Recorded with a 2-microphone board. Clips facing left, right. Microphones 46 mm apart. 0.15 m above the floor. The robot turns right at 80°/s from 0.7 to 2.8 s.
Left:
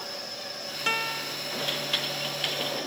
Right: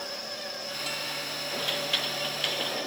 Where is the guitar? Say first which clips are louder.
Left 8 dB; 130° left; by 1.4 s 170° left.